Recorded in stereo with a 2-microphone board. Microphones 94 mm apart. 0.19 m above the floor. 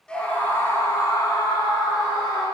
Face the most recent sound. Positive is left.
turn(degrees=45)  # may be behind; listen again after turning